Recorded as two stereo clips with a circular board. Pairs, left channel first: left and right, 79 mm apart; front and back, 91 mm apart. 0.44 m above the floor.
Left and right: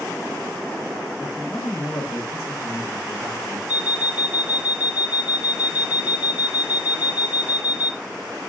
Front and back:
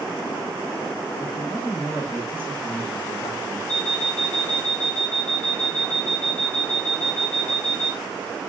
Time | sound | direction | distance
1.2 | a man speaking | 50° left | 5.5 m
3.7 | an alarm clock | 70° left | 2.5 m